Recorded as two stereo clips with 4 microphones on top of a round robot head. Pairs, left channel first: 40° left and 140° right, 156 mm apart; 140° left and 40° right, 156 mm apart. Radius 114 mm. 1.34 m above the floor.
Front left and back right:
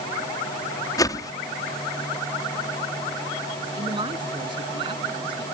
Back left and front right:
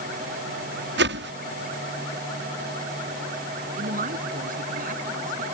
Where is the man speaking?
80° right.